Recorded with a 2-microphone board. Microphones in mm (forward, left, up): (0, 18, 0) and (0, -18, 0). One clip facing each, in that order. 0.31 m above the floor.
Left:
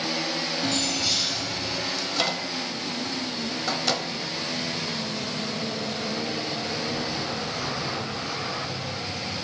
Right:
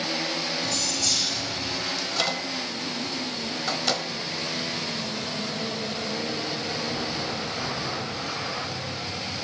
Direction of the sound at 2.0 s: Centre (ahead or behind).